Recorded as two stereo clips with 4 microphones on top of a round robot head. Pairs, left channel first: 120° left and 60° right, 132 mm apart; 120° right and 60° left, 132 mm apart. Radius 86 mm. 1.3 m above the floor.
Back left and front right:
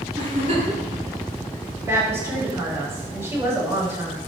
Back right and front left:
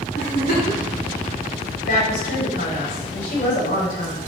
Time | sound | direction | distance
0.2 | a giggle | 100° right | 7 m
1.8 | a woman speaking | 130° right | 7 m